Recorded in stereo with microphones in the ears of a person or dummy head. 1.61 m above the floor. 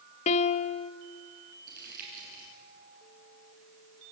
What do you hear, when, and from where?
0.3 s a piano: 35° left (ahead or behind), 0.7 m
1.7 s crumpling: 50° right (ahead or behind), 8.5 m